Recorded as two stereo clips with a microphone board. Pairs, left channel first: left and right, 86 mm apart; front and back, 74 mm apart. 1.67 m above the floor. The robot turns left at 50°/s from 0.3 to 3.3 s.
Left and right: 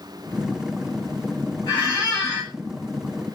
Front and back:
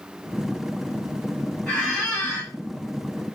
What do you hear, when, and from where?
1.7 s a squeak: 70° left, 1.4 m; by 2.5 s 30° left, 1.4 m